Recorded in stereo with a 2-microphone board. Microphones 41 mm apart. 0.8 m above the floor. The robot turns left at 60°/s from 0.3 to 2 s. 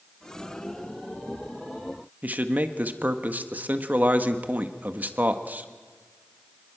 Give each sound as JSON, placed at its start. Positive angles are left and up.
{"t": 2.2, "sound": "a man speaking", "side_deg": -45, "distance_m": 1.3}